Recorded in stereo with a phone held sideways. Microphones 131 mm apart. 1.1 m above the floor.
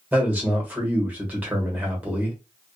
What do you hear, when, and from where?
0.1 s a man speaking: 10° right (ahead or behind), 1.3 m